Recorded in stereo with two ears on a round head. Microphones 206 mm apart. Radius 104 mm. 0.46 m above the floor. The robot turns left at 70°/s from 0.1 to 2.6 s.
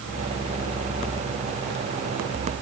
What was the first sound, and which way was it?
Only background noise.